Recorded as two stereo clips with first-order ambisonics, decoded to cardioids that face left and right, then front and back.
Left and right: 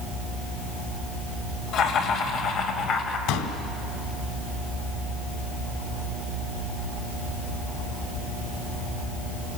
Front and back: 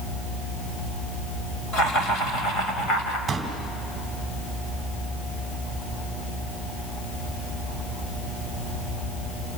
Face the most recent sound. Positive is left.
turn(degrees=105)